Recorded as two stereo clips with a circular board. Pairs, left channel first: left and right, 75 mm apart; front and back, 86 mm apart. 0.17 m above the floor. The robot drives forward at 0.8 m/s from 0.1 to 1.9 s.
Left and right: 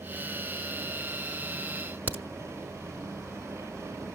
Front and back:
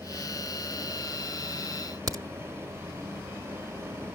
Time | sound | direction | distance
2.1 | a crack | 145° right | 1.0 m